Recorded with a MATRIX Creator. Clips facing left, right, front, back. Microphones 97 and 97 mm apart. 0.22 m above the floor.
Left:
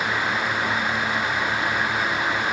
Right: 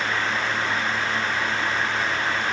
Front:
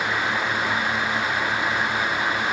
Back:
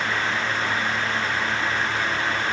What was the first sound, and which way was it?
Only background noise.